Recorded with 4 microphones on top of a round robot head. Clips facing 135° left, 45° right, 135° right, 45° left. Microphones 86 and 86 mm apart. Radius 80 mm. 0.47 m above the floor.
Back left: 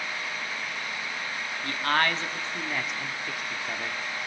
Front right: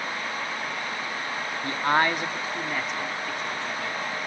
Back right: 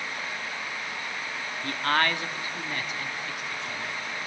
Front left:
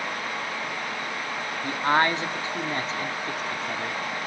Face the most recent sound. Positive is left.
turn(degrees=70)